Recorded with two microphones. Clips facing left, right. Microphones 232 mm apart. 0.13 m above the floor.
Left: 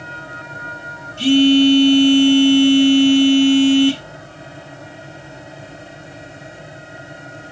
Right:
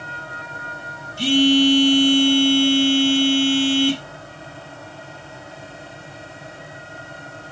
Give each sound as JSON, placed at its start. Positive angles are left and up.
{"t": 1.2, "sound": "a phone buzzing", "side_deg": -10, "distance_m": 1.5}